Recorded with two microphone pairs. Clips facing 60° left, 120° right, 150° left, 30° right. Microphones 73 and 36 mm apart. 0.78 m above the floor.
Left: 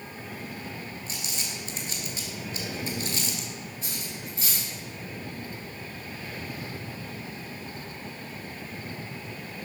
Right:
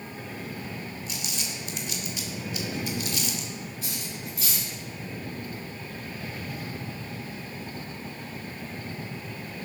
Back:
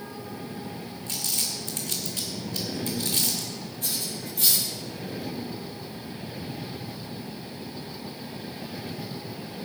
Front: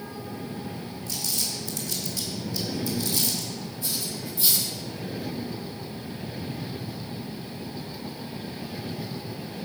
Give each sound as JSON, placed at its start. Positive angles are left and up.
{"t": 1.1, "sound": "crumpling", "azimuth_deg": 115, "distance_m": 2.0}
{"t": 3.8, "sound": "cutlery clinking", "azimuth_deg": 115, "distance_m": 6.5}